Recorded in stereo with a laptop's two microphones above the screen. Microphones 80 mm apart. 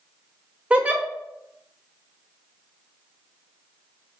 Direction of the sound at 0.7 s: 15° right (ahead or behind).